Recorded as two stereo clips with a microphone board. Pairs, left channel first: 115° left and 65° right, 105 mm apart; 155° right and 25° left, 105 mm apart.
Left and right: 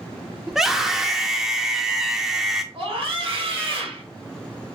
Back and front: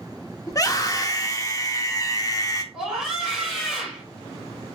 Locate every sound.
0.5 s a scream: 150° right, 0.7 m
2.7 s a scream: 60° right, 2.5 m